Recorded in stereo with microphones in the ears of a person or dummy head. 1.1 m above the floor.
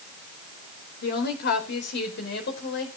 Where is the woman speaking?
55° left (ahead or behind), 4.5 m; by 2.9 s 60° left (ahead or behind), 5.5 m.